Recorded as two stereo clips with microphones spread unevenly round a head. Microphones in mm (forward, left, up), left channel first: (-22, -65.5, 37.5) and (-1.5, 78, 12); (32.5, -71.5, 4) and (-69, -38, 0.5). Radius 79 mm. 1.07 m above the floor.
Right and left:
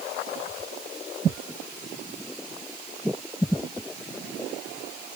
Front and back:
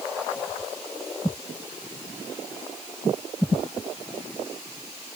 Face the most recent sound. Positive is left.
No sound to turn to.